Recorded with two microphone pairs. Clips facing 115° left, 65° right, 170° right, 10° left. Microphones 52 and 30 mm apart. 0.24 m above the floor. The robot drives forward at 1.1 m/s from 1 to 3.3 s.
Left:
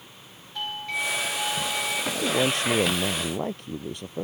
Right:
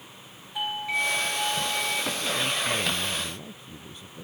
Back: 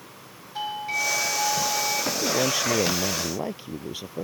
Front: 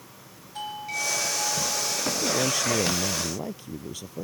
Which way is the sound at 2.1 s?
115° left.